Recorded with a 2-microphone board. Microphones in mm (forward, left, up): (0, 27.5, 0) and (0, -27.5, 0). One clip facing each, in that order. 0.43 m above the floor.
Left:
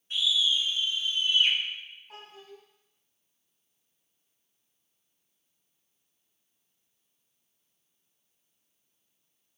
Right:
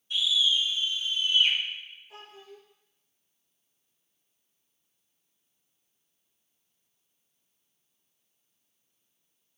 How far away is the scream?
About 1.9 m.